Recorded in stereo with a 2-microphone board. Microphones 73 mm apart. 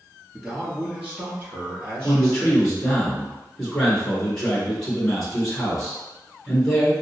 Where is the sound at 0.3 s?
5° right (ahead or behind), 1.6 m; by 2.7 s 40° right (ahead or behind), 2.5 m.